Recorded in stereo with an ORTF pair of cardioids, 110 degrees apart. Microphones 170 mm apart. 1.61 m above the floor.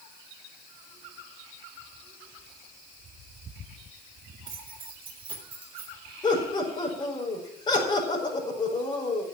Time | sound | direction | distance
4.5 | keys jangling | 35° right | 3.5 m
6.2 | laughter | 25° left | 5 m